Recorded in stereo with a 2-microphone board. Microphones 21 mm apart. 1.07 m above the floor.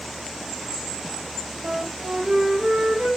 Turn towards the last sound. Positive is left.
turn(degrees=-60)  # may be behind; listen again after turning